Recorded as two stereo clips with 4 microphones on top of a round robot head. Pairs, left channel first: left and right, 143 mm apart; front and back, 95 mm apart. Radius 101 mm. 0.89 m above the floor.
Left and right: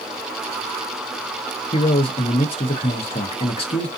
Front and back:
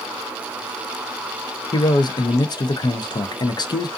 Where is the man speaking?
40° left, 0.6 m.